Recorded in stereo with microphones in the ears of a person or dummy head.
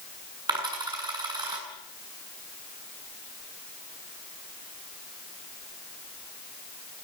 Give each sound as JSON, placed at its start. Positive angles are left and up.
{"t": 0.5, "sound": "a dropped coin", "side_deg": -25, "distance_m": 7.0}